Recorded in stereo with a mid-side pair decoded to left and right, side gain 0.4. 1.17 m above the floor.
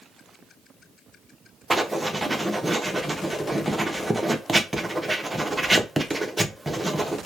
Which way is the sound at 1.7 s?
15° right.